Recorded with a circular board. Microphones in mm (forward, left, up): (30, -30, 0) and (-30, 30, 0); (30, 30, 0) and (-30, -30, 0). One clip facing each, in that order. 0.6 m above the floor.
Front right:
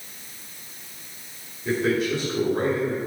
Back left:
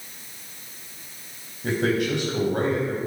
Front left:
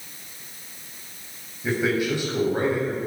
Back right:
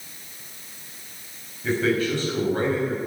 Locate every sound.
1.6 s a man speaking: 120° left, 4.5 m